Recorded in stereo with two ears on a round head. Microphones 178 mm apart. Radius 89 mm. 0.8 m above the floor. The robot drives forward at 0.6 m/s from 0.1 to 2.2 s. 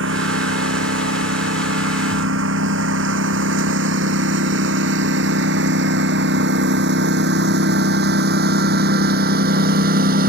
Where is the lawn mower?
65° right (ahead or behind); by 10.3 s 45° right (ahead or behind).